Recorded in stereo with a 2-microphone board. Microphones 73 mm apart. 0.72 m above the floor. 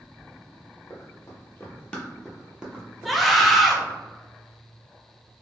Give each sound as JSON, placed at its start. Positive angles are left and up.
{"t": 0.9, "sound": "running footsteps", "side_deg": 45, "distance_m": 1.0}
{"t": 3.0, "sound": "a scream", "side_deg": 0, "distance_m": 0.5}